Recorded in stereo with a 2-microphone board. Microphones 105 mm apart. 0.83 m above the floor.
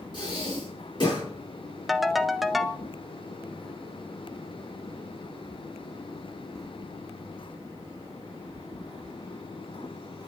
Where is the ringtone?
Centre (ahead or behind), 0.6 m.